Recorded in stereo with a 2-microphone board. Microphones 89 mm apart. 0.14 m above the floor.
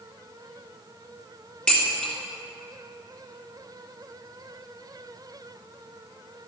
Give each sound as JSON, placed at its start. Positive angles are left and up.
{"t": 1.7, "sound": "dishes clattering", "side_deg": 10, "distance_m": 2.0}